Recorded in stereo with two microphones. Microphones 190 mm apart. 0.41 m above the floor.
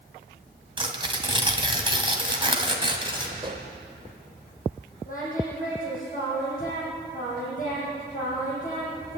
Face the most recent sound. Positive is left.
turn(degrees=45)  # may be behind; listen again after turning